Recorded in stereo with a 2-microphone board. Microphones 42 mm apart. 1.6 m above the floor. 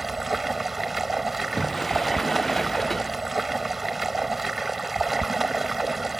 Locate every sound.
0.0 s running water: 5° right (ahead or behind)
1.4 s a sliding door: 10° left (ahead or behind)